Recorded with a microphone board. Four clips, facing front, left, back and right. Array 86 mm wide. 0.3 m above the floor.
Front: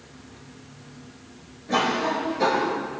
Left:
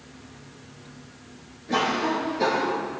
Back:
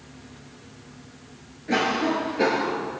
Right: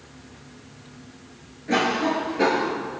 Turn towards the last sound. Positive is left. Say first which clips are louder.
# right 2 dB, even
turn(degrees=-135)